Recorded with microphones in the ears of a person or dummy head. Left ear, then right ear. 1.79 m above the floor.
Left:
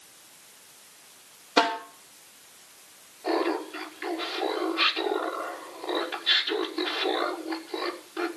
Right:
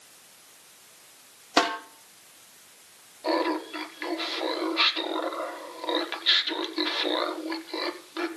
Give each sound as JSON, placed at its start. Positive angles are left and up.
{"t": 1.6, "sound": "a snare drum", "side_deg": -85, "distance_m": 5.0}
{"t": 3.2, "sound": "laughter", "side_deg": -45, "distance_m": 5.5}